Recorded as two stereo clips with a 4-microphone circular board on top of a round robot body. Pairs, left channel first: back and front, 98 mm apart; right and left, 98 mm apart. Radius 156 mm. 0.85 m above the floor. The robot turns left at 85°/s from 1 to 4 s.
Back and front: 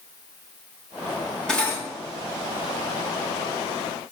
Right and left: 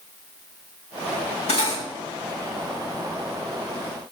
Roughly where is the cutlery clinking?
Right.